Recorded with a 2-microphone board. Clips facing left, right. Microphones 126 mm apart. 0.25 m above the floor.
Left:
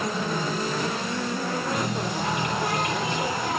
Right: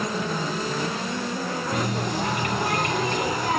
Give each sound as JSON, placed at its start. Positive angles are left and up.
{"t": 1.7, "sound": "a running tap", "side_deg": -60, "distance_m": 1.5}